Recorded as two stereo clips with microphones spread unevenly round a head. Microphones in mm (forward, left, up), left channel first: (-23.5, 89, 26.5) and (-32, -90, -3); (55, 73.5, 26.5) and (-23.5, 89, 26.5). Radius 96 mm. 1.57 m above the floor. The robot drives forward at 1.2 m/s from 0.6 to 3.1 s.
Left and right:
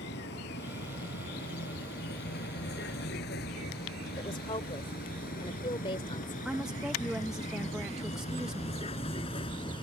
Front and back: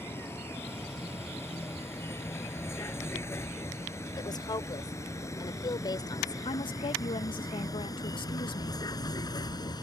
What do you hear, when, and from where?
0.0 s a vehicle: 50° left; by 9.8 s 20° left
4.2 s a woman speaking: 20° left
6.5 s a woman speaking: 5° right